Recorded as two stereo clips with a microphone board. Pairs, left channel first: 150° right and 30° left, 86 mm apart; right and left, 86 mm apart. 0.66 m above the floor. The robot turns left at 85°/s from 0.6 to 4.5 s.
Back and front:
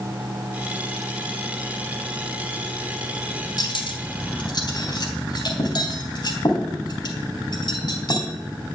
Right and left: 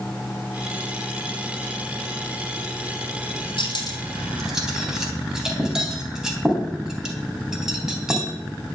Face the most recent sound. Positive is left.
turn(degrees=175)